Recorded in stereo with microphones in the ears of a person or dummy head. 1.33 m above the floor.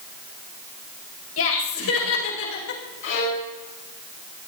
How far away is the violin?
About 7 m.